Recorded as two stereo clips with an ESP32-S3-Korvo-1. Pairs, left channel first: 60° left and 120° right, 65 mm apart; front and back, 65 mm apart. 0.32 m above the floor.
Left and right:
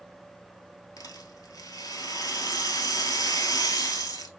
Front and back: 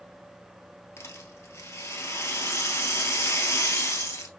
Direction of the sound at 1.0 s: 45° left.